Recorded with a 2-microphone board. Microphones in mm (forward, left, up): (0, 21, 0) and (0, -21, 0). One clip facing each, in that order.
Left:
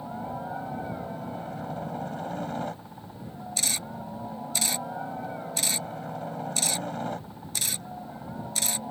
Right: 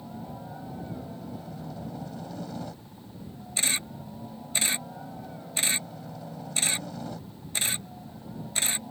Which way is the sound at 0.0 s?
40° left (ahead or behind).